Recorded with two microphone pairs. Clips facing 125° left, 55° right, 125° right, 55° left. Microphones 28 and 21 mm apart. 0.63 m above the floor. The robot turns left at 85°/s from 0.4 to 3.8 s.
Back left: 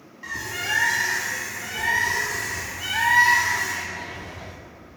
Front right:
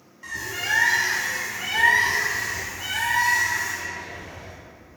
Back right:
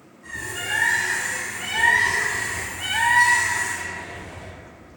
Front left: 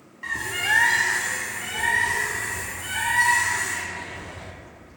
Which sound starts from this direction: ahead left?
A bird, at 0.2 s.